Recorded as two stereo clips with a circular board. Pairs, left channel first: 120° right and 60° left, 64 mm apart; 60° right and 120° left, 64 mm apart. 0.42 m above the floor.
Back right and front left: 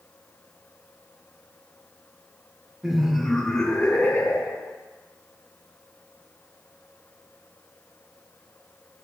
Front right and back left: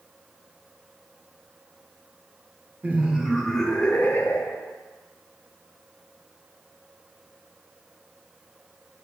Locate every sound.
2.8 s laughter: 130° left, 1.0 m; by 4.7 s 95° right, 1.2 m